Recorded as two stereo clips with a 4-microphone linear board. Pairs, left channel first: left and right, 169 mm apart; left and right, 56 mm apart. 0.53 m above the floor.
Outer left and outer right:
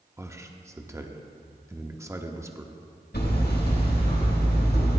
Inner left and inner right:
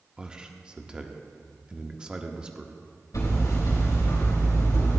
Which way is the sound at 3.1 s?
85° left.